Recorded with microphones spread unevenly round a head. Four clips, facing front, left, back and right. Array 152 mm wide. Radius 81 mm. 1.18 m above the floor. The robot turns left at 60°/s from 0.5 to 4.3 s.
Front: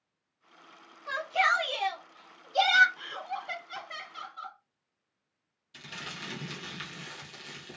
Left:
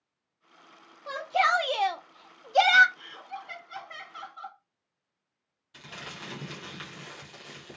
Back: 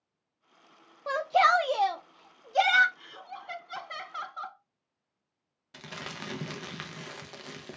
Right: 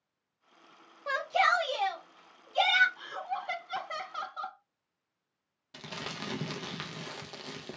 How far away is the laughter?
About 0.6 m.